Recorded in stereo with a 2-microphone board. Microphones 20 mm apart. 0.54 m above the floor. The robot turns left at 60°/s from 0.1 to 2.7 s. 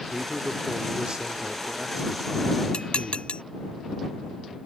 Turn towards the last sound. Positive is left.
turn(degrees=65)  # may be behind; listen again after turning